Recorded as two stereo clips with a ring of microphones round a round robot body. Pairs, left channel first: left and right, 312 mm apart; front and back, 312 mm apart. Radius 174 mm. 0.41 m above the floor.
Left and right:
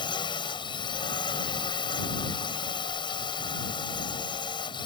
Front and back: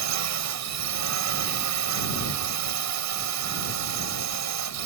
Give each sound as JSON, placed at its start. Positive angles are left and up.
{"t": 0.0, "sound": "a drone", "azimuth_deg": 165}